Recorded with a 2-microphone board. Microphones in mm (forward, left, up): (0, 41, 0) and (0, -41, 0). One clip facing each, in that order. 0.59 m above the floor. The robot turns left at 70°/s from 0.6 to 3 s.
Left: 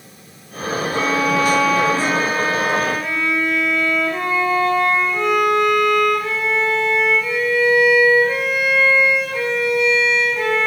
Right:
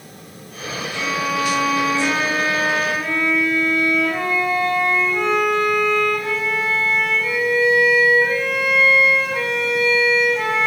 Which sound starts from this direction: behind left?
A violin, at 0.9 s.